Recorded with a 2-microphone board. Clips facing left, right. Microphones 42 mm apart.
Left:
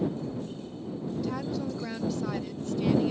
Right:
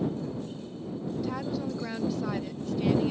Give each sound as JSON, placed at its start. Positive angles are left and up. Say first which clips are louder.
{"t": 1.2, "sound": "a woman speaking", "louder": "even", "side_deg": -5}